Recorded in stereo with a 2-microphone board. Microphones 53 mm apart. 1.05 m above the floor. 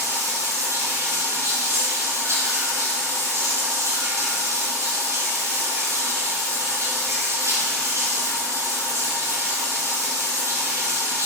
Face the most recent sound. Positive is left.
turn(degrees=-70)  # may be behind; listen again after turning